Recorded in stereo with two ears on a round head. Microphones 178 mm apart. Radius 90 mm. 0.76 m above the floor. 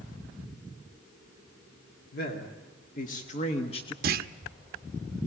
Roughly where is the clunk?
Right.